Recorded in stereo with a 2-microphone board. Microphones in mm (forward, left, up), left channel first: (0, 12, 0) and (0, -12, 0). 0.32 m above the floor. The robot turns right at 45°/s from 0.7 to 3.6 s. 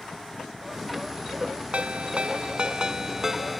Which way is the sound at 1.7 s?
90° right.